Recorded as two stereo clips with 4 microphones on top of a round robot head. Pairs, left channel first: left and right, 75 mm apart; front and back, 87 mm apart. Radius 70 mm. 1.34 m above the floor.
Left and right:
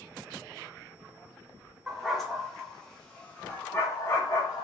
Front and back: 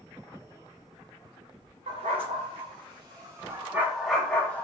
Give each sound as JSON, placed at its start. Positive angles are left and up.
{"t": 1.9, "sound": "a dog barking", "azimuth_deg": -175, "distance_m": 1.5}